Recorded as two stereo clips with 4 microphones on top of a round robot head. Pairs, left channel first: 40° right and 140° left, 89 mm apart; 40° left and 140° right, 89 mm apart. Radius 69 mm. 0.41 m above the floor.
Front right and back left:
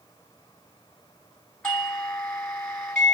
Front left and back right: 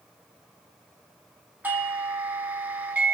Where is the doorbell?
110° right, 1.5 m.